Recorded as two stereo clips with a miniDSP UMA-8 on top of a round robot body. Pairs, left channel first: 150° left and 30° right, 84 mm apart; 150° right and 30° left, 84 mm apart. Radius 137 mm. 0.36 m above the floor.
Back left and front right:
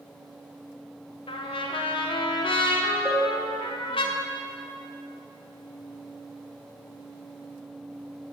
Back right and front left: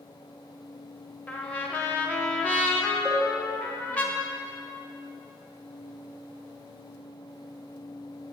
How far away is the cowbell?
About 2 m.